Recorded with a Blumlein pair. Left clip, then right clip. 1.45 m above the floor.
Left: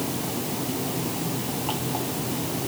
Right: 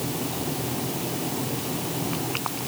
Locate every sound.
Only background noise.